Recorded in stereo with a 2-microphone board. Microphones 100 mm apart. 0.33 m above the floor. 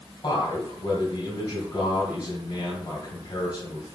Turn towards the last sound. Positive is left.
turn(degrees=45)  # may be behind; listen again after turning